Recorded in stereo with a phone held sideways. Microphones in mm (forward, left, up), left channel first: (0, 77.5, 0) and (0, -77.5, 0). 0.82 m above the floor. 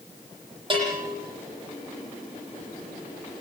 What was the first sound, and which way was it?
A bell, 35° right (ahead or behind).